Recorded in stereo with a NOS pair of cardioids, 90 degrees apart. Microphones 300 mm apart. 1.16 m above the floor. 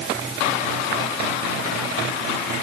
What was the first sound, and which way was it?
Only background noise.